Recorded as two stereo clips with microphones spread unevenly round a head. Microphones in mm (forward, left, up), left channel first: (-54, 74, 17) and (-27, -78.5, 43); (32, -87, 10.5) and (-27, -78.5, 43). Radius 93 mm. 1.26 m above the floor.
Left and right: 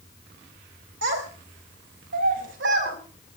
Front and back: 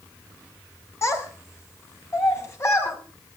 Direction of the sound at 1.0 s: 55° right.